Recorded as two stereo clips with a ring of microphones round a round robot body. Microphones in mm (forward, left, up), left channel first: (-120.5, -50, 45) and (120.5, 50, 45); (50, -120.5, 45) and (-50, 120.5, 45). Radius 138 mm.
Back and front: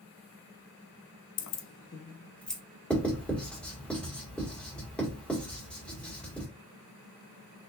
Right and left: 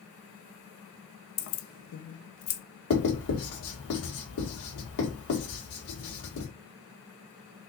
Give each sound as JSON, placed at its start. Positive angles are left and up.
{"t": 1.4, "sound": "keys jangling", "azimuth_deg": -120, "distance_m": 0.6}
{"t": 2.9, "sound": "writing", "azimuth_deg": -70, "distance_m": 1.7}